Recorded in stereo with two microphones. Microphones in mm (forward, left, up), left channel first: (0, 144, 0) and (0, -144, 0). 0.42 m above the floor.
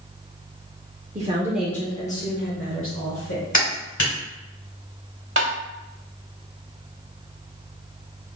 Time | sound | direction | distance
1.1 | a woman speaking | 25° right (ahead or behind) | 0.9 m
3.5 | a clap | 70° left (ahead or behind) | 2 m
5.4 | tapping | 45° right (ahead or behind) | 0.8 m